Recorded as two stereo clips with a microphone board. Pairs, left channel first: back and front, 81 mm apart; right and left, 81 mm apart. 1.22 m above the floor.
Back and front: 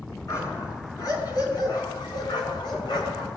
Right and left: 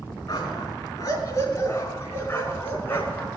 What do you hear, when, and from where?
0.3 s a dog barking: 135° right, 5 m; by 3.3 s 160° right, 5 m